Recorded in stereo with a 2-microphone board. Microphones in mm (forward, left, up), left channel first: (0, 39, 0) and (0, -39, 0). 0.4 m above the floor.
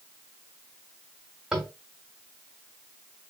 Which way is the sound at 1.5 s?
5° right (ahead or behind).